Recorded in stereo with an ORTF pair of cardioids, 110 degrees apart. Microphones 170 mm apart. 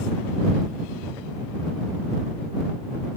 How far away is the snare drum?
I don't hear a snare drum.